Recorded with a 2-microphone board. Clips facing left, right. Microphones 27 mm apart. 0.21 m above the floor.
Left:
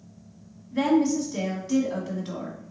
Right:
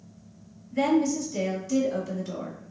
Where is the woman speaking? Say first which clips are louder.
Left 2 dB; 40° left (ahead or behind), 1.3 m.